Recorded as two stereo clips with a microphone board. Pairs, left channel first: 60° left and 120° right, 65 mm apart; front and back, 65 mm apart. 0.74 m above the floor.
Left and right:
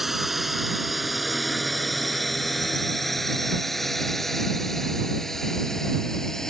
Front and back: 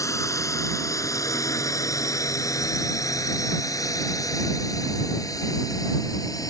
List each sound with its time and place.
0.0 s a drone: 35° right; by 6.5 s 25° right